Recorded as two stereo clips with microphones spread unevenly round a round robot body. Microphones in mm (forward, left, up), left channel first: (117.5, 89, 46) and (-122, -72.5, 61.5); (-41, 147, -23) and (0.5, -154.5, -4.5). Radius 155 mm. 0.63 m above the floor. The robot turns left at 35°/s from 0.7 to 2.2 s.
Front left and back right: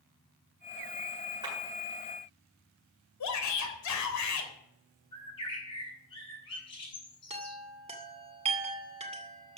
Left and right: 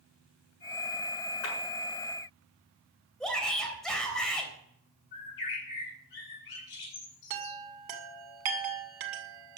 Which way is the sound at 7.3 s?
75° right.